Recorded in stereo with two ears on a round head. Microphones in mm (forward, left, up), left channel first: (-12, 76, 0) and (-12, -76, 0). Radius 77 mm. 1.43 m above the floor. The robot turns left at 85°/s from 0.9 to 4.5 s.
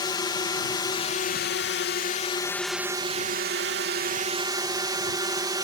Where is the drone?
155° left; by 5.7 s 155° right.